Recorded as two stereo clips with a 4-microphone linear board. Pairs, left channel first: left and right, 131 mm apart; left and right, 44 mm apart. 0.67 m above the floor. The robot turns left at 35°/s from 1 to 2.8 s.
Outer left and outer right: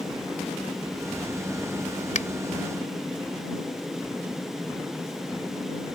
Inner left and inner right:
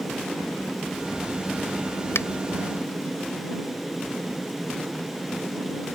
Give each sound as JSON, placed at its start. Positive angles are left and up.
{"t": 2.1, "sound": "a finger snap", "side_deg": 75}